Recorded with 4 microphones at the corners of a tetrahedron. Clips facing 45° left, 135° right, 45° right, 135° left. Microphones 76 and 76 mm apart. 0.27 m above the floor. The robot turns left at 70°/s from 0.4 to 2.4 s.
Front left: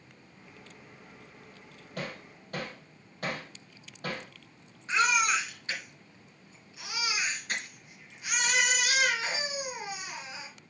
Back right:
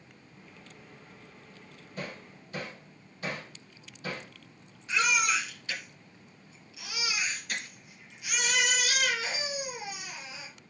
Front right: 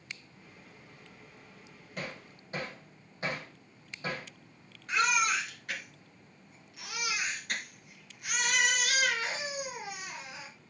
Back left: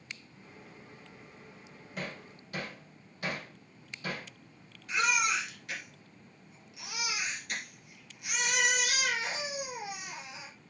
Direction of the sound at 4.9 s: 5° right.